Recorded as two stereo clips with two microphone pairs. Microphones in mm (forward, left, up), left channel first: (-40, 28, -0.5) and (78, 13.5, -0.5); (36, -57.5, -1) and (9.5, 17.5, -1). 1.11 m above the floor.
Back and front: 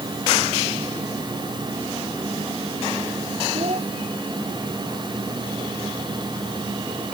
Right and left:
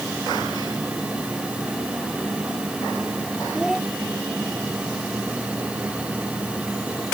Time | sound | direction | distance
3.5 | a child speaking | 25° left | ?